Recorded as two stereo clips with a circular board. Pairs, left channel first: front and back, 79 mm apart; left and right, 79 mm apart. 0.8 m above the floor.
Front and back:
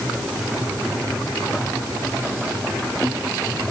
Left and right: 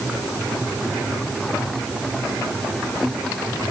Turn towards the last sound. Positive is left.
No sound to turn to.